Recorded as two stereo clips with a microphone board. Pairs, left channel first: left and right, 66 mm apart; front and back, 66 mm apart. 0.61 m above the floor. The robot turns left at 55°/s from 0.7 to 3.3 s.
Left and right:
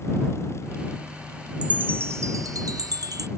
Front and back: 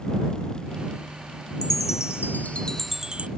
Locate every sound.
1.6 s a chime: 20° right; by 3.3 s 110° right